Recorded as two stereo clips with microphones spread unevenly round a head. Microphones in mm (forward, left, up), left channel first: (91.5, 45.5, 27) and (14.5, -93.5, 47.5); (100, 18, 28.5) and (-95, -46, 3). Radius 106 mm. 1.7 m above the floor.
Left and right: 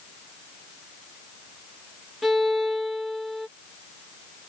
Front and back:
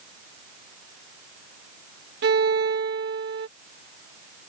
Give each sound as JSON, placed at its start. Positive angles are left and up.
{"t": 2.2, "sound": "a violin", "azimuth_deg": 155}